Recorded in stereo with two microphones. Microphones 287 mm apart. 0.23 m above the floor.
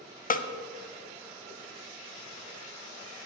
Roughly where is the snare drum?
Left.